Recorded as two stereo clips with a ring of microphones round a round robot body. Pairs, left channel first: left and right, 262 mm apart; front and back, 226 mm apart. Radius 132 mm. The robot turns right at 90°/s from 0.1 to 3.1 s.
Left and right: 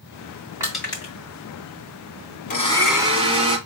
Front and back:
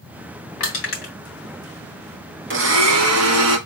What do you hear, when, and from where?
0.6 s crushing: 15° right, 2.5 m; by 1.1 s 35° left, 2.5 m
2.5 s a blender: 145° left, 2.0 m; by 3.6 s 160° right, 2.0 m